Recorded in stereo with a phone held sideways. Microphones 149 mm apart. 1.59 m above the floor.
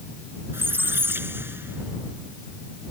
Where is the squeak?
15° right (ahead or behind).